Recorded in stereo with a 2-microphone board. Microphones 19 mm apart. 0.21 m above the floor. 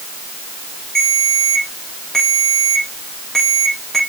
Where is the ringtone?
25° left (ahead or behind), 4.5 m.